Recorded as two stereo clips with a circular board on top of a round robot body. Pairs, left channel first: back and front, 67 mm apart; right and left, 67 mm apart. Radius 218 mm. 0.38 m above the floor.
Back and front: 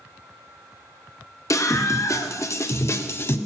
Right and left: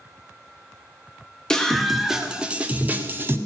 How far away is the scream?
About 2 m.